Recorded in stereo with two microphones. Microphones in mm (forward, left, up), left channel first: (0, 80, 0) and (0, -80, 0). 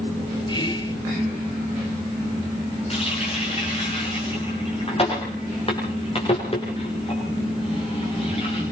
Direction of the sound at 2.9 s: 40° left (ahead or behind).